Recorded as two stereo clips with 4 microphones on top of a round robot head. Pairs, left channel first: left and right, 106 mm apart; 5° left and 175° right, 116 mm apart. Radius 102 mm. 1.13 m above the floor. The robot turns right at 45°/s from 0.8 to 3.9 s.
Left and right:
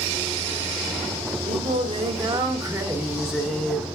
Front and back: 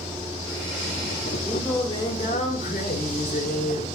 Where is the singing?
90° right, 2 m; by 3.9 s 20° left, 2 m.